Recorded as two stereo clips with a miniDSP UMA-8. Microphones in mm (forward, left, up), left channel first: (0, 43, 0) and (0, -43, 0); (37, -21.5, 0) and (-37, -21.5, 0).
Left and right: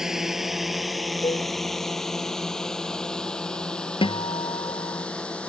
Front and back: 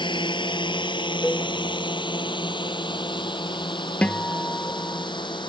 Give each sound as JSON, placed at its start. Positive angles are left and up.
{"t": 0.0, "sound": "a drone", "azimuth_deg": -5}
{"t": 1.2, "sound": "a cowbell", "azimuth_deg": 70}
{"t": 4.0, "sound": "a guitar", "azimuth_deg": 75}